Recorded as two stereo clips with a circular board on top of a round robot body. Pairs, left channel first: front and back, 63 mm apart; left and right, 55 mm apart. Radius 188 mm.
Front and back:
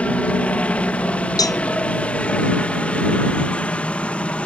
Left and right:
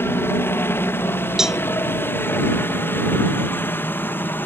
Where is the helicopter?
65° left; by 4.5 s 60° left.